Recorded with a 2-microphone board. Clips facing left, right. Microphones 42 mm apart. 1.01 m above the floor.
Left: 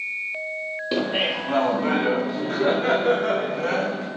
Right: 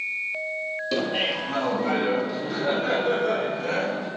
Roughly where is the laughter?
Centre.